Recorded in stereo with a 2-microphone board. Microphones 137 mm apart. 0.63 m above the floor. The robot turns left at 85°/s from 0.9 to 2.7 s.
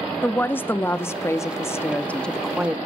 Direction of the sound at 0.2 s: 15° left (ahead or behind).